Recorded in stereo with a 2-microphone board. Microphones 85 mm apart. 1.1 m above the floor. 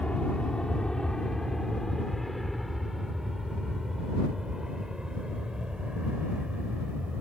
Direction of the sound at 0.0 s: 15° left (ahead or behind).